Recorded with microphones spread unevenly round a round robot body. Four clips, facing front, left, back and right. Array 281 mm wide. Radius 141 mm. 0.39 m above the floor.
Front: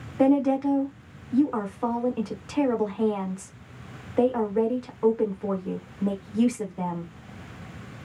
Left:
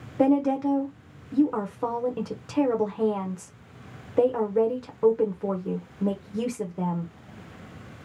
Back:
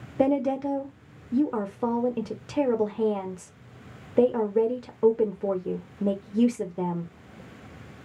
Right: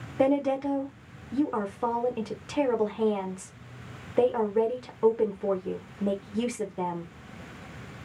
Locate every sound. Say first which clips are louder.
0.2 s a woman speaking: left 3 dB, front 3 dB; 165° left, 1.1 m